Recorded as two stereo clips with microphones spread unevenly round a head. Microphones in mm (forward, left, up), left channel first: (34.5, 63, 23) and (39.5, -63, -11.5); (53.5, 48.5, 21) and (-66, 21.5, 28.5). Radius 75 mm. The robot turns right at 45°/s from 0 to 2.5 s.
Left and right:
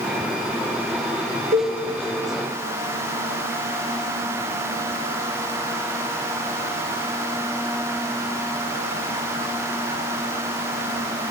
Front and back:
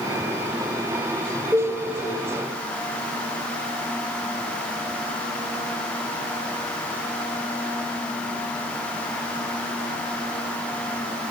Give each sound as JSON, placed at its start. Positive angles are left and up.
{"t": 1.5, "sound": "a cowbell", "azimuth_deg": -90, "distance_m": 0.6}